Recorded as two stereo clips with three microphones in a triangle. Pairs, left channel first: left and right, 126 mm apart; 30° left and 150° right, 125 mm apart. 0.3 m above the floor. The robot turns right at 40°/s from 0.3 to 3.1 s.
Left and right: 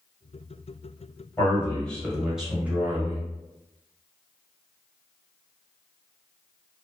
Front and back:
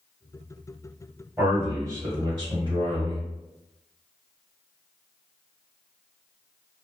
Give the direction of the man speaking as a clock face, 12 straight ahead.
7 o'clock.